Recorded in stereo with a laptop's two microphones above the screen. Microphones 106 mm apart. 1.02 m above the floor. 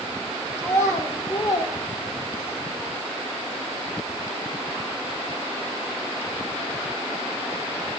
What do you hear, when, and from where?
0.6 s a child speaking: 25° left (ahead or behind), 2.5 m; by 2.6 s 55° left (ahead or behind), 1.7 m